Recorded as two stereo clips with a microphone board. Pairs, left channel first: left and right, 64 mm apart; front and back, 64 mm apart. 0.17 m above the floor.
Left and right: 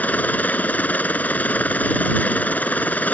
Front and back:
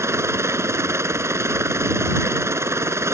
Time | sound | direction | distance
0.0 | a helicopter | 150° left | ?